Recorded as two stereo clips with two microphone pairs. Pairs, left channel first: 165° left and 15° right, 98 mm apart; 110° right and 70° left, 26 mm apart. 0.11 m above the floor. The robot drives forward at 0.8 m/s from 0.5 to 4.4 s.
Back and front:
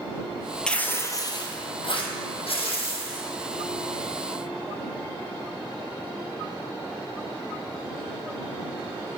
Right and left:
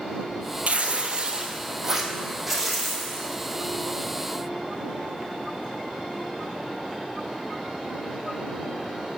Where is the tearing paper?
85° left, 0.8 m; by 3.3 s 160° left, 2 m.